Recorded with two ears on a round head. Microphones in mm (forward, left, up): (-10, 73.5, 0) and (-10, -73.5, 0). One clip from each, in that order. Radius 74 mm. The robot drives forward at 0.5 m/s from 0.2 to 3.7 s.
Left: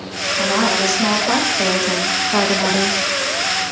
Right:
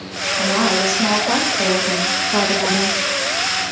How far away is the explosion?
I don't hear an explosion.